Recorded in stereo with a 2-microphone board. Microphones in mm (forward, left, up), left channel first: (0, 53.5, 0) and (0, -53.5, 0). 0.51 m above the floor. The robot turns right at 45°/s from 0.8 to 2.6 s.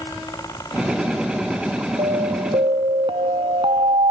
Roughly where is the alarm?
Right.